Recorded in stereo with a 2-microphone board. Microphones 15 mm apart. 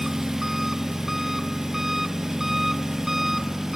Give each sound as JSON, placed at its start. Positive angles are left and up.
{"t": 0.0, "sound": "an engine running", "side_deg": -25, "distance_m": 0.9}